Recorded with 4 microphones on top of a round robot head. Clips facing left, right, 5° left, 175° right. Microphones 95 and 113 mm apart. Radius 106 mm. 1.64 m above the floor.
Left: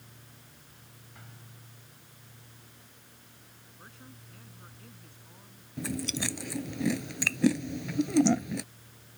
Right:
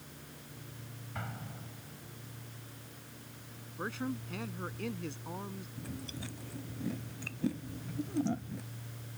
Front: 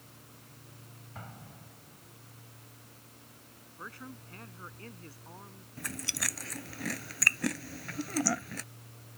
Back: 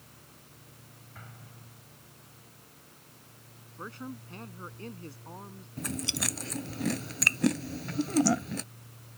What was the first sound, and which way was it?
An explosion, 60° right.